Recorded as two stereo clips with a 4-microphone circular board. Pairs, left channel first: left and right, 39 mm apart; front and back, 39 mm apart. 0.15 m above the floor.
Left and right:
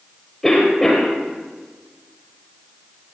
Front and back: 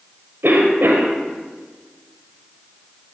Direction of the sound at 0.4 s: 165° left.